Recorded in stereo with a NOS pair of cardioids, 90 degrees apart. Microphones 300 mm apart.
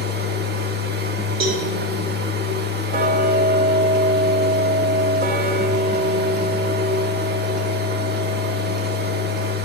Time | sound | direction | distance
0.0 | a machine running | 35° right | 1.1 m
1.4 | a cowbell | 70° right | 1.8 m
2.9 | ticking | 30° right | 1.0 m